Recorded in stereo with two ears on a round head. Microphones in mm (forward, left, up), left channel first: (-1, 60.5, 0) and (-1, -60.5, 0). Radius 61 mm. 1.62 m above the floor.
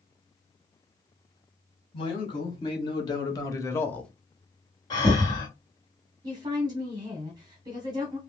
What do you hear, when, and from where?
1.9 s a man speaking: 40° left (ahead or behind), 1.9 m; by 4.1 s 5° left (ahead or behind), 0.5 m
4.9 s breathing: 30° left (ahead or behind), 1.5 m
6.2 s a woman speaking: 30° right (ahead or behind), 0.8 m